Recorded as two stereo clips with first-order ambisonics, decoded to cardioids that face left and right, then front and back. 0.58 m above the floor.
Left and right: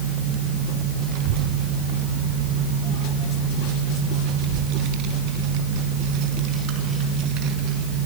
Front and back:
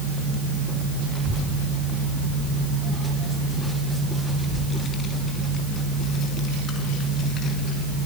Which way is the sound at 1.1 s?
90° right.